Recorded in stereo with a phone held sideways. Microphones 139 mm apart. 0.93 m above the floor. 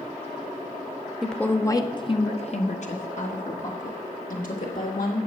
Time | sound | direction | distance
1.2 | a woman speaking | centre (ahead or behind) | 0.7 m